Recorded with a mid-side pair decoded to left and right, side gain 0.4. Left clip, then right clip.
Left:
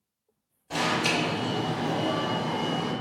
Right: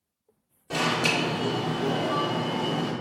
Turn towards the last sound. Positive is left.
turn(degrees=-70)